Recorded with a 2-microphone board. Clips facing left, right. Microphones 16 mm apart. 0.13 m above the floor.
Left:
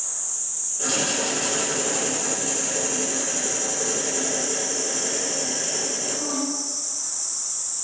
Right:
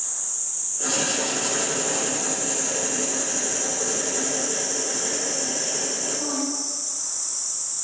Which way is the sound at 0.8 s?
25° left (ahead or behind).